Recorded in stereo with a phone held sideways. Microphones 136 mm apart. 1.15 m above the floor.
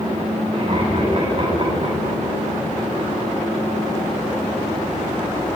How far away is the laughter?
About 8.5 m.